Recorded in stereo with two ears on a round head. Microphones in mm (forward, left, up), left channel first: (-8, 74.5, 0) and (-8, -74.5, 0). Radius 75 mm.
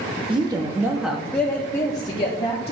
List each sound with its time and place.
0.3 s a woman speaking: 30° right (ahead or behind), 0.9 m; by 2.7 s 35° left (ahead or behind), 1.3 m